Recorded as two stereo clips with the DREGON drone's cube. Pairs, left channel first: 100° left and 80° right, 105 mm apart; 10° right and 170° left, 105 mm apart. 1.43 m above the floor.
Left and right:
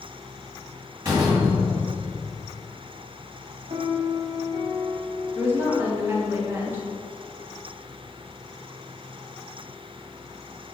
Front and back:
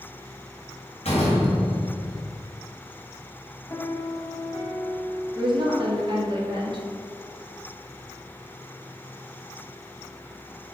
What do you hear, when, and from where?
1.1 s a door slam: 20° right, 1.6 m
3.7 s a piano: 75° right, 1.0 m
5.3 s a woman speaking: 145° right, 1.4 m